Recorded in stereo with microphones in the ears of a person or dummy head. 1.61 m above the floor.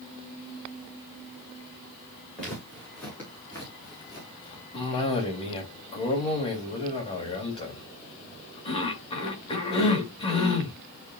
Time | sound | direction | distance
2.4 | footsteps | 5° left (ahead or behind) | 5.5 m
4.7 | a cough | 30° left (ahead or behind) | 3 m